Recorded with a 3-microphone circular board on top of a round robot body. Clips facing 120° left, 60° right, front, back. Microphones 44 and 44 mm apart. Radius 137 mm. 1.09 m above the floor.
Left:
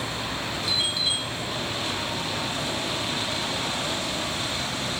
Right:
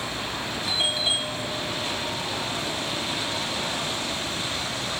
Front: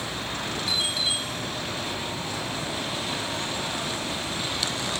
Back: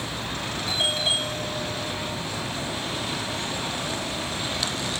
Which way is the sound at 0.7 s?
125° right.